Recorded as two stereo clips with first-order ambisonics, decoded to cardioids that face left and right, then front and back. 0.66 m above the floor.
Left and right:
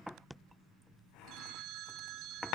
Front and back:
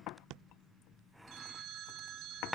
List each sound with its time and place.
1.3 s a phone ringing: 135° right, 6.5 m